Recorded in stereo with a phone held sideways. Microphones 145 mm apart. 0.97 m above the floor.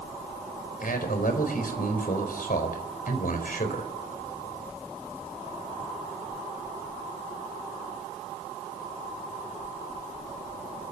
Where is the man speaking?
80° left, 4.5 m.